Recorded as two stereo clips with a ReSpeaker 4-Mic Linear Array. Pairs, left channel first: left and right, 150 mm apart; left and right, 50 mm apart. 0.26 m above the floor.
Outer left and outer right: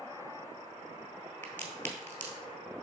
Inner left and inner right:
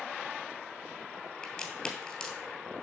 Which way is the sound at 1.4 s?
10° left (ahead or behind).